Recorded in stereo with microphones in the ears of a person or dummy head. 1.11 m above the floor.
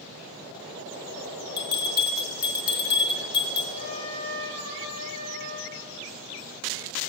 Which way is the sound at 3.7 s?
30° left (ahead or behind).